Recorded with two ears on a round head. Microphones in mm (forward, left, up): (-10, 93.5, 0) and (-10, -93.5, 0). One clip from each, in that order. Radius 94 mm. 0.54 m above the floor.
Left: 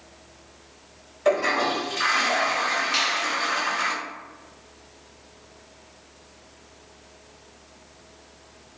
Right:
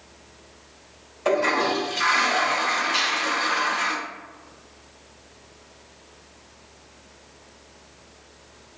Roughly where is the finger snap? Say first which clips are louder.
Even; left.